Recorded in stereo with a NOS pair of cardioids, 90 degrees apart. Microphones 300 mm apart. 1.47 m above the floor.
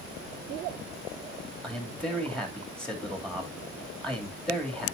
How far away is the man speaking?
About 3 m.